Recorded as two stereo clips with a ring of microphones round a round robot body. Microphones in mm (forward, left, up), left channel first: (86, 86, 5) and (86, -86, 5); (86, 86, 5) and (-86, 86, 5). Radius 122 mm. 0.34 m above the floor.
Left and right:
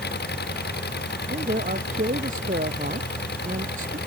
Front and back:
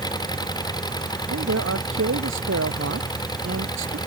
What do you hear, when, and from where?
0.0 s an engine running: 65° left
1.3 s a man speaking: 150° right